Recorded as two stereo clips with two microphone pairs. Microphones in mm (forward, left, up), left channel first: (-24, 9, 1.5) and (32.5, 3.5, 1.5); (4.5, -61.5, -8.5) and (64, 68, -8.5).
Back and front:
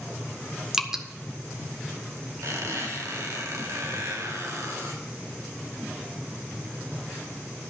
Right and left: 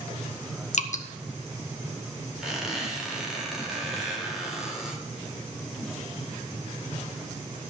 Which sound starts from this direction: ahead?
A squeak, at 2.4 s.